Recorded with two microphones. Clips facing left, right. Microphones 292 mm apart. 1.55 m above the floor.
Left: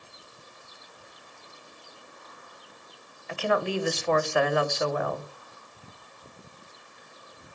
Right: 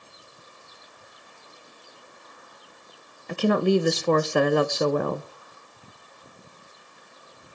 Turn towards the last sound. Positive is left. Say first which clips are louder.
# right 7 dB
turn(degrees=-45)  # may be behind; listen again after turning